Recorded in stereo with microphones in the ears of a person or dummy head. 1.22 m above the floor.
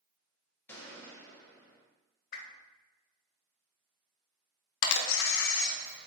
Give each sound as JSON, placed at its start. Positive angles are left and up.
{"t": 0.7, "sound": "a gunshot", "side_deg": 15, "distance_m": 1.1}
{"t": 2.3, "sound": "a whoosh", "side_deg": 55, "distance_m": 0.7}
{"t": 4.8, "sound": "a camera shutter", "side_deg": 80, "distance_m": 0.7}